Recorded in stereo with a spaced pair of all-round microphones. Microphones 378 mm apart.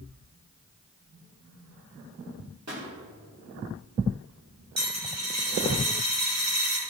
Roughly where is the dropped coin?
Right.